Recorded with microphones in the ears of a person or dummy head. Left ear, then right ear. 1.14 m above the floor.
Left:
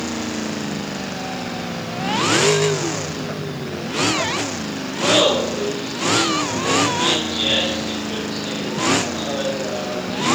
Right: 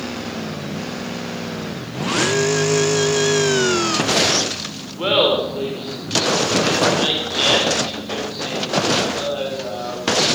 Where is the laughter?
65° right (ahead or behind), 4 m; by 10.4 s 30° right (ahead or behind), 7.5 m.